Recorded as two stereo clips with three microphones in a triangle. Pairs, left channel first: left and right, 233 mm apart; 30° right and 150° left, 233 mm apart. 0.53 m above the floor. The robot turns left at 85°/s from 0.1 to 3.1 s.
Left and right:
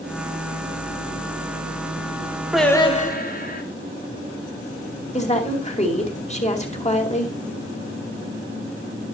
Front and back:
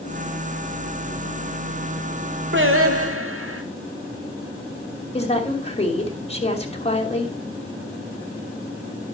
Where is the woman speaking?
30° left, 2.5 m.